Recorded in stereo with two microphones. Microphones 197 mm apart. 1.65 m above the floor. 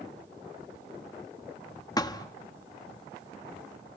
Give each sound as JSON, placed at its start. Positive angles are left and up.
{"t": 2.0, "sound": "a thud", "side_deg": 20, "distance_m": 1.1}